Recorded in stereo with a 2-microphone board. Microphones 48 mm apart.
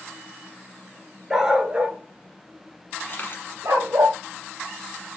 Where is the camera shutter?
45° left (ahead or behind), 1.2 m.